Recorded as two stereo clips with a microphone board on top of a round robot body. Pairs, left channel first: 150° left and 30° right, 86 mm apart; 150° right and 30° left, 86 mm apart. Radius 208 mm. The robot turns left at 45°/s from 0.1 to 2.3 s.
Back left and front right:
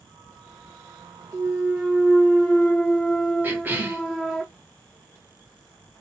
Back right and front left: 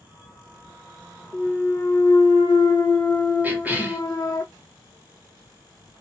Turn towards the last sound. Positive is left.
turn(degrees=-5)